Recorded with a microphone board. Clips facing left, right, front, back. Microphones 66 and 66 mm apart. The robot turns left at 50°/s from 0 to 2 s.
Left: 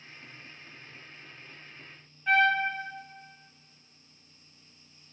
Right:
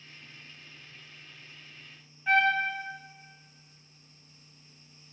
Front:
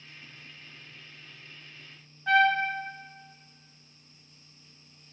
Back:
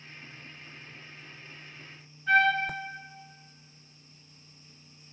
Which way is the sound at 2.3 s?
5° right.